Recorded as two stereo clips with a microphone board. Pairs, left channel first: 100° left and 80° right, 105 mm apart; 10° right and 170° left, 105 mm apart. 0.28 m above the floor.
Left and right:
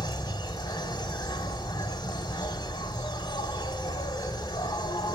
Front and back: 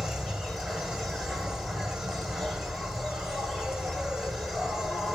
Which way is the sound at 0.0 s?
80° left.